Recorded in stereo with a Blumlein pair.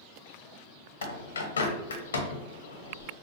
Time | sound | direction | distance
1.0 | a bird | 65° left | 0.8 m